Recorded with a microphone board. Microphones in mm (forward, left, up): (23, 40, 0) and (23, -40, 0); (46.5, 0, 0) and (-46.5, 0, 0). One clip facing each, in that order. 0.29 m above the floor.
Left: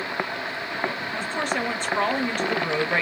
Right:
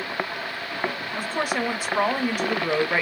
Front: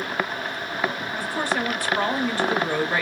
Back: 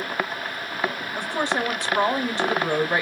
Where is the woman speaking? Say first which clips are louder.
Right 1 dB, back 1 dB; 155° right, 0.9 m.